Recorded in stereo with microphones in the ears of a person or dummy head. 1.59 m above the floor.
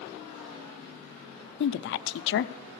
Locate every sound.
1.6 s a woman speaking: 65° left (ahead or behind), 0.5 m